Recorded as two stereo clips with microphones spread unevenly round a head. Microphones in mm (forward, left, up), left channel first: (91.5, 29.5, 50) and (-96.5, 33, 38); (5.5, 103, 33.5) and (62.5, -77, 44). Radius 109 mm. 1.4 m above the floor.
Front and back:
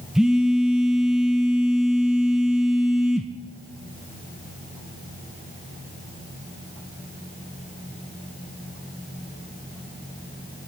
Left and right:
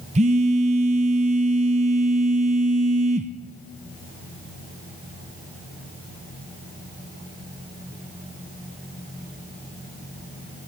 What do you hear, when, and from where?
0.1 s a phone buzzing: 90° right, 0.5 m